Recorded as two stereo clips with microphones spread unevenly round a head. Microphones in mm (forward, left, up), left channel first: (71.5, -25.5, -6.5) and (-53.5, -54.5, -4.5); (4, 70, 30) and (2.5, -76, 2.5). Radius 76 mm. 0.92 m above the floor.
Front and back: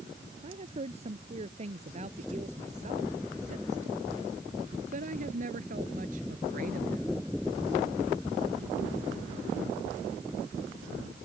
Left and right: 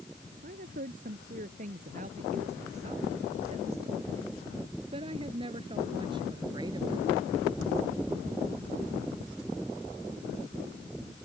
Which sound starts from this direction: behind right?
A woman speaking, at 0.4 s.